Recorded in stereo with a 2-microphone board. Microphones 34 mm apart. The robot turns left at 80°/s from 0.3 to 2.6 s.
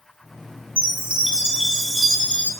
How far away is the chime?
About 1.8 m.